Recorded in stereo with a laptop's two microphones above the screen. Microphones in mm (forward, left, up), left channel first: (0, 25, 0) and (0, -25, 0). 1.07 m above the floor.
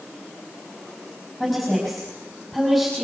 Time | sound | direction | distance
1.4 | a woman speaking | 5° left (ahead or behind) | 5 m